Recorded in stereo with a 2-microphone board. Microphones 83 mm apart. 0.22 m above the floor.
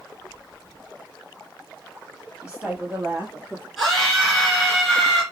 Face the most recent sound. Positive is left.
turn(degrees=0)  # may be behind; listen again after turning